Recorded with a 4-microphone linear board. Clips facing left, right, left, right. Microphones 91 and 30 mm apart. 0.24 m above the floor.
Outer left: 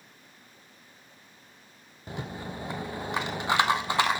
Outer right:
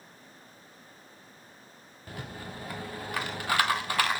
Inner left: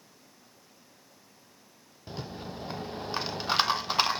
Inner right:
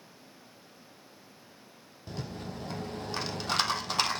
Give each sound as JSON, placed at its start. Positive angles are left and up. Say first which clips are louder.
{"t": 2.1, "sound": "a rattle", "louder": "outer left 4 dB, even", "side_deg": 25, "distance_m": 1.2}